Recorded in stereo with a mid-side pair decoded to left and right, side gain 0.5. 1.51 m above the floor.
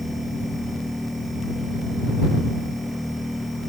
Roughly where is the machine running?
Ahead.